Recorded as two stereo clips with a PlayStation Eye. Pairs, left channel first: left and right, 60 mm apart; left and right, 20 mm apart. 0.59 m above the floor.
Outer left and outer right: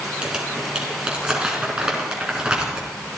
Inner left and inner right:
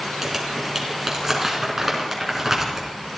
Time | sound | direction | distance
0.2 | crumpling | 15° right (ahead or behind) | 4 m